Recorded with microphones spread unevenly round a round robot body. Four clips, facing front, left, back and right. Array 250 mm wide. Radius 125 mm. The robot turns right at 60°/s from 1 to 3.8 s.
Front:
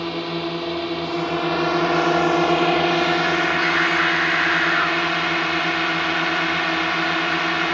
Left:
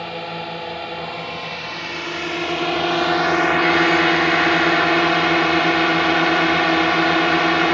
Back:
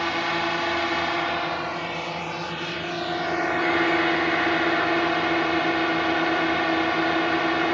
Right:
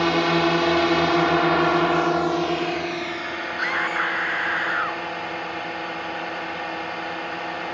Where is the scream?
50° right; by 5.0 s 35° right.